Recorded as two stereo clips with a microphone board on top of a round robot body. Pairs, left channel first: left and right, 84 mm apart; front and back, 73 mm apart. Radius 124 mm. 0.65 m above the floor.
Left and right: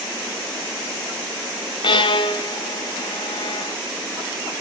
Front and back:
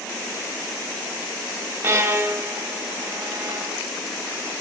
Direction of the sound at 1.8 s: 115° left.